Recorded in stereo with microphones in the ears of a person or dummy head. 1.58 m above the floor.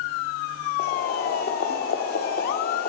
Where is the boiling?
45° left (ahead or behind), 0.6 m.